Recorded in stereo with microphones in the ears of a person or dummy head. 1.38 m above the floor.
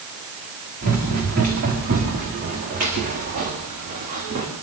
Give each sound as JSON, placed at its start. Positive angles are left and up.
{"t": 0.8, "sound": "running footsteps", "side_deg": -60, "distance_m": 8.5}